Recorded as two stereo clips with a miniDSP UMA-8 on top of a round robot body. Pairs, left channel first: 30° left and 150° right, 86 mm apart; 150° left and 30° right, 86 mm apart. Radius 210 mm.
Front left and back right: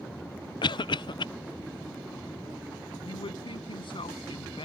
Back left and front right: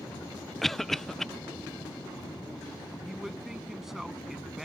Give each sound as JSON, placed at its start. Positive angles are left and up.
{"t": 0.6, "sound": "a cough", "azimuth_deg": 65}
{"t": 3.0, "sound": "a man speaking", "azimuth_deg": 55}